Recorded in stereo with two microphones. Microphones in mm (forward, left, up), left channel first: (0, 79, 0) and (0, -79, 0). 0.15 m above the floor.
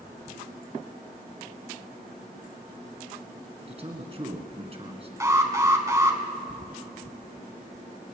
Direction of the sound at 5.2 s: 20° right (ahead or behind).